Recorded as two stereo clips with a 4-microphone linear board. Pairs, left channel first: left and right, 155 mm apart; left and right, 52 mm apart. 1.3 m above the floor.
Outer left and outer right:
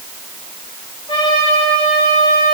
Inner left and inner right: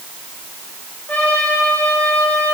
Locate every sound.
1.1 s a trumpet: 35° left (ahead or behind), 7.5 m